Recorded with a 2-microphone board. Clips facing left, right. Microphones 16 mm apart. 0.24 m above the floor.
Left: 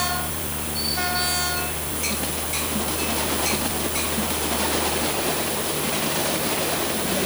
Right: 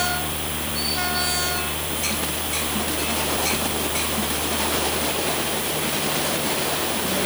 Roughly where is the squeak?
No squeak in this recording.